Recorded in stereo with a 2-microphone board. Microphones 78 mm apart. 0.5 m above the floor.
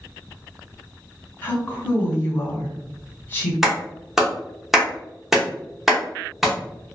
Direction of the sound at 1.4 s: 25° left (ahead or behind).